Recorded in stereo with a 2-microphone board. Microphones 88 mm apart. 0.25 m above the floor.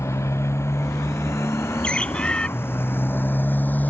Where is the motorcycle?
35° left (ahead or behind); by 3.9 s 20° left (ahead or behind).